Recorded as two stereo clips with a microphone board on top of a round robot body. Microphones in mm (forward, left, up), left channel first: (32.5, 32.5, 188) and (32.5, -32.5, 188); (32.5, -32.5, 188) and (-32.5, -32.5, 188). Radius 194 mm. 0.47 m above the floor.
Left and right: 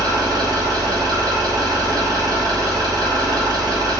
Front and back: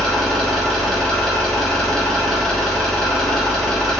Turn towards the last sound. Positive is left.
turn(degrees=-85)